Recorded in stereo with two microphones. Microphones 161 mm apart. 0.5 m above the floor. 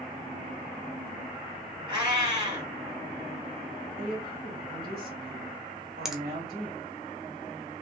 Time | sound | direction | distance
1.9 | a cat meowing | 25° right (ahead or behind) | 2 m
4.0 | a woman speaking | 65° right (ahead or behind) | 1.8 m
6.0 | a finger snap | 5° right (ahead or behind) | 0.5 m